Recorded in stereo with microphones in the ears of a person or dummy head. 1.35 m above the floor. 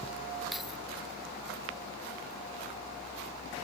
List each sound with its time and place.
0.5 s keys jangling: centre (ahead or behind)